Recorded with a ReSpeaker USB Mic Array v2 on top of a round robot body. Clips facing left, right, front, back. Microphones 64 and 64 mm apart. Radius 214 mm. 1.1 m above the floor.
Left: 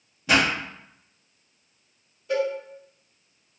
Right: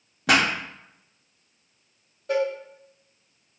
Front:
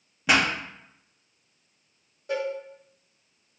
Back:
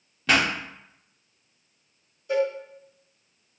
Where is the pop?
80° right, 1.0 m.